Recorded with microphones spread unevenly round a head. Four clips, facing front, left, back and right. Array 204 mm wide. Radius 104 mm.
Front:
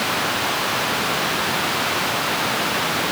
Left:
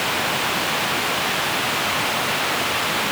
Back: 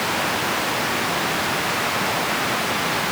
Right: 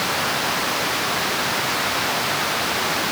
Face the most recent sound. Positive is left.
No sound to turn to.